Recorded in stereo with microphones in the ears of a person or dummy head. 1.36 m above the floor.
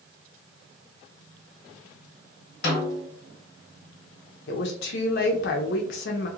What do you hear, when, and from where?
2.6 s a snare drum: 45° left (ahead or behind), 1.5 m
4.5 s a woman speaking: 55° left (ahead or behind), 0.7 m